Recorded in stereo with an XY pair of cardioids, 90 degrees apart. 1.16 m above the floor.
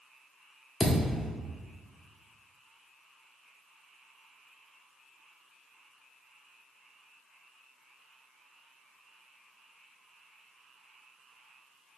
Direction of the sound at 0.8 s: 30° left.